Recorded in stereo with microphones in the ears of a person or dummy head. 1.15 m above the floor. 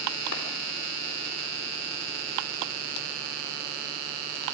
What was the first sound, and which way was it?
A clap, 70° left (ahead or behind).